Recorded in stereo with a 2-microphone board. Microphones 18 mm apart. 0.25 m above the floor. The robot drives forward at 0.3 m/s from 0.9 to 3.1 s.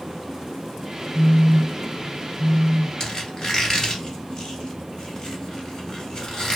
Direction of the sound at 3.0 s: 45° left (ahead or behind).